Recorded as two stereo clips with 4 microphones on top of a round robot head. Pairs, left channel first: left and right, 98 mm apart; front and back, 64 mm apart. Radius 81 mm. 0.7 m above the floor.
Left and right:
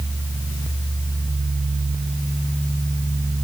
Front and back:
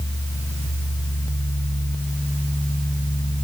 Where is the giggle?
No giggle in this recording.